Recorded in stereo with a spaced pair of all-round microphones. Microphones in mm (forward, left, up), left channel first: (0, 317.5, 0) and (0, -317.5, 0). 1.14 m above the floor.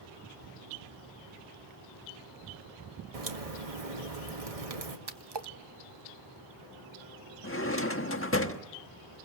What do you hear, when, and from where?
3.1 s a crack: 65° right (ahead or behind), 1.7 m
5.1 s a splash: 40° right (ahead or behind), 1.1 m
7.4 s a drawer: 20° left (ahead or behind), 1.2 m